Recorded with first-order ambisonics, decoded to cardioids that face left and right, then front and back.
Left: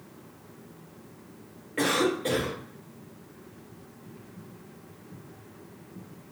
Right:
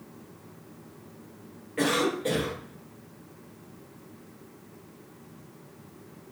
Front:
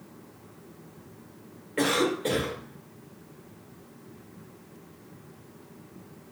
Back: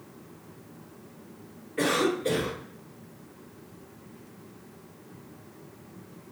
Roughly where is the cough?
Ahead.